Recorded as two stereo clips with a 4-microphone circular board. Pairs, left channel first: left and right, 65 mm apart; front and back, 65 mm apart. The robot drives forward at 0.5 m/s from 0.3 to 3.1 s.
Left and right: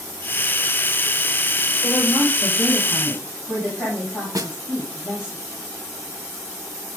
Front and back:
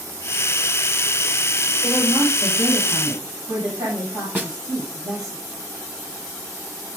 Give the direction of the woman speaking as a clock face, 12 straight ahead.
7 o'clock.